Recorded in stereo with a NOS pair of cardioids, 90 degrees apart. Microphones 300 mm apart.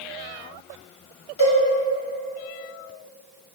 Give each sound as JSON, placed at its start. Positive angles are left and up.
{"t": 1.4, "sound": "a cowbell", "azimuth_deg": 60, "distance_m": 1.5}